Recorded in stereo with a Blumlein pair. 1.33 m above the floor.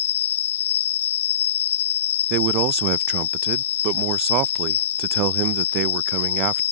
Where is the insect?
60° left.